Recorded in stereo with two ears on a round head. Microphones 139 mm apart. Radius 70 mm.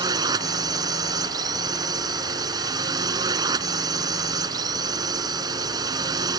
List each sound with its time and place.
0.0 s a drone: 25° right (ahead or behind)